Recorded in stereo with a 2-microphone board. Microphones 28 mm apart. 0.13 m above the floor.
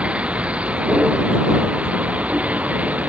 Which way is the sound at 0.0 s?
50° right (ahead or behind).